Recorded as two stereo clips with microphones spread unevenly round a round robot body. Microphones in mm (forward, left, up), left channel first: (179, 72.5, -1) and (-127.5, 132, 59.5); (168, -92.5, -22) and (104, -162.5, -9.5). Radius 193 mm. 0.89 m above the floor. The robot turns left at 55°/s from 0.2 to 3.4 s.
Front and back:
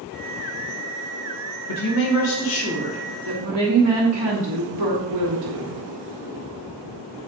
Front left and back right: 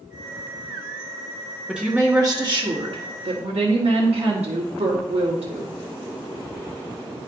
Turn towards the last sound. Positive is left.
turn(degrees=-140)